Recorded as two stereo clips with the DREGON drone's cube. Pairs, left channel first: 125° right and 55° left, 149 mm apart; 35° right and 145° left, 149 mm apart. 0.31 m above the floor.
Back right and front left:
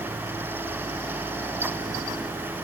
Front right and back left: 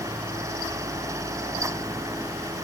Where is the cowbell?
I don't hear a cowbell.